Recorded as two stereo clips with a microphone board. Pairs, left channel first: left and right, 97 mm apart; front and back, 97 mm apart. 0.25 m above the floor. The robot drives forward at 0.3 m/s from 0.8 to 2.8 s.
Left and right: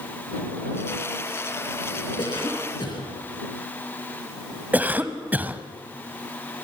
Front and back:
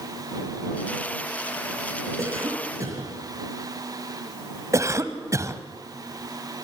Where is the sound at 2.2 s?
125° left, 4.5 m.